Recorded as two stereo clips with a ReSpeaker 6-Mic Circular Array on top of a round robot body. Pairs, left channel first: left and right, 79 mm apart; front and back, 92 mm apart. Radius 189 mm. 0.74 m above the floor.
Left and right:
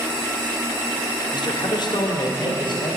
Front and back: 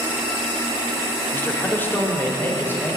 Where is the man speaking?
65° left, 2 m; by 3.0 s 70° left, 4 m.